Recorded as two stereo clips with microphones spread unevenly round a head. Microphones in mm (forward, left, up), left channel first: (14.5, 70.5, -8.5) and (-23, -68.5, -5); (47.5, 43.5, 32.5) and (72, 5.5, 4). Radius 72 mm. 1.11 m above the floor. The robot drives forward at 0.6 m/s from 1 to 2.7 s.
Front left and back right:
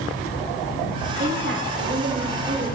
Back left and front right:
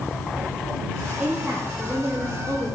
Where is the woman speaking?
120° right, 1.9 m; by 2.8 s 140° right, 2.5 m.